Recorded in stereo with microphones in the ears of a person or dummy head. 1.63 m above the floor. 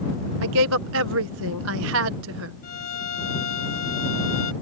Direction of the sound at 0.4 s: 75° right (ahead or behind).